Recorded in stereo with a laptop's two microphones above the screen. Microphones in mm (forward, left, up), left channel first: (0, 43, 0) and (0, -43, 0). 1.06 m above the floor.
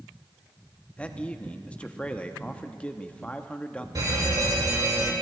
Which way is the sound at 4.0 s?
50° right (ahead or behind).